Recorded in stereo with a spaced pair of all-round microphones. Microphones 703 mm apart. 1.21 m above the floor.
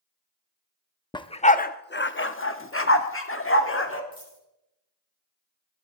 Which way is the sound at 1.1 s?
5° left (ahead or behind).